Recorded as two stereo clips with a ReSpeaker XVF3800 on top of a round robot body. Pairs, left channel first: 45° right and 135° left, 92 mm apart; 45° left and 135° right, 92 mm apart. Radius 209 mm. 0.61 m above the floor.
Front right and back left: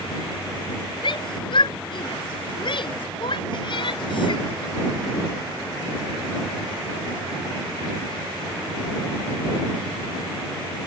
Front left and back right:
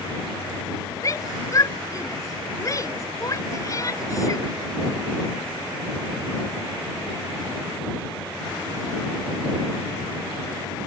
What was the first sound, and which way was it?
A shout, 10° right.